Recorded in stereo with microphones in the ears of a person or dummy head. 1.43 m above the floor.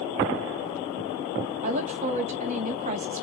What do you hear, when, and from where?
1.6 s a woman speaking: 45° right (ahead or behind), 1.3 m